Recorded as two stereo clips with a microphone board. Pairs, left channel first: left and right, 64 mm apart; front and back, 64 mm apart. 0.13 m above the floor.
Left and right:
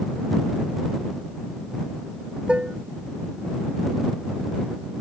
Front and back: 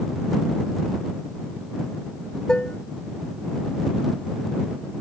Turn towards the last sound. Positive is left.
turn(degrees=-55)